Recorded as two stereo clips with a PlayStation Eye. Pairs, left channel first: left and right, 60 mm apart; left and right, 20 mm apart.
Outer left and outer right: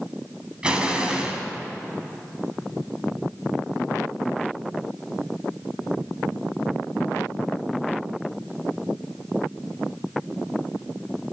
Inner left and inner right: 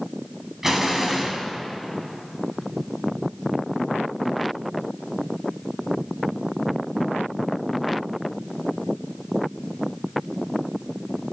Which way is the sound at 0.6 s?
15° right (ahead or behind).